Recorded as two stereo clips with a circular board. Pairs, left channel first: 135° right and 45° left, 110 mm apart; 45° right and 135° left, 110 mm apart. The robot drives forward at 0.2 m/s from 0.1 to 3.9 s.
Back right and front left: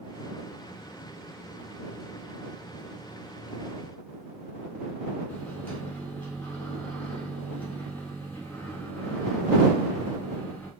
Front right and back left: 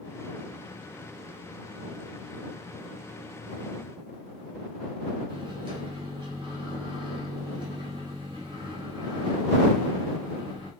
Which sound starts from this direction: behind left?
A microwave, at 5.3 s.